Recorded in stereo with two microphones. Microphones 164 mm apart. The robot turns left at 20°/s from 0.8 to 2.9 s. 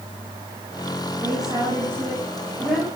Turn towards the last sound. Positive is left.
turn(degrees=175)